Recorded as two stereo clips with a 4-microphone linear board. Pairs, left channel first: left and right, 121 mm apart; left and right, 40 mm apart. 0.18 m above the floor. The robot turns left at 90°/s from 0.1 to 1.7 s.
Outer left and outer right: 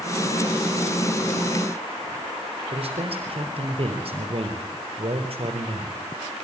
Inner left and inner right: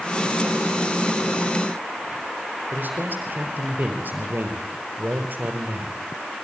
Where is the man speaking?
55° right (ahead or behind), 3.5 m.